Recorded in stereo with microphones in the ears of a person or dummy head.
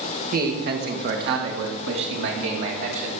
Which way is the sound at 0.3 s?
50° right (ahead or behind).